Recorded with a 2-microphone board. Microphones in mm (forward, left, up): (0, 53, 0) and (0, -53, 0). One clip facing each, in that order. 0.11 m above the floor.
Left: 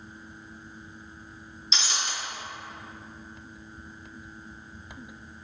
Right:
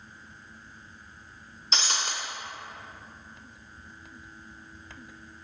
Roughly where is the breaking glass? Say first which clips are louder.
Right 2 dB; right.